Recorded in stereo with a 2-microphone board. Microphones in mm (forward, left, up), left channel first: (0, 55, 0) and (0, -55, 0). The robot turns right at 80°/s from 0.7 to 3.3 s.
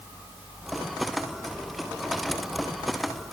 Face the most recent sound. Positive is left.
No sound to turn to.